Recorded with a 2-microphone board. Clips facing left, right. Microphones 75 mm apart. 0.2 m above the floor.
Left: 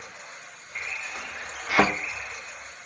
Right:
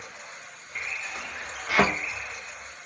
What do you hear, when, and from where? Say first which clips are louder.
1.7 s a thud: left 1 dB; 15° left (ahead or behind), 2 m